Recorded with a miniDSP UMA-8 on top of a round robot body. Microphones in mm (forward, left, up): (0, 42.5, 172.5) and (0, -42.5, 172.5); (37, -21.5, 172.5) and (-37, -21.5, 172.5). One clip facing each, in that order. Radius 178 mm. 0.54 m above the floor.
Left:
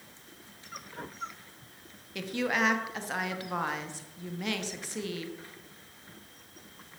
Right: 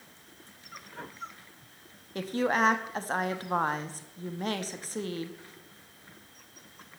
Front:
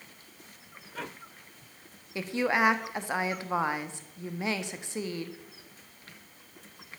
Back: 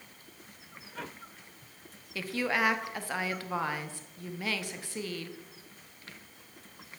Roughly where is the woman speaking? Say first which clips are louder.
Right 3 dB, front 3 dB; ahead right.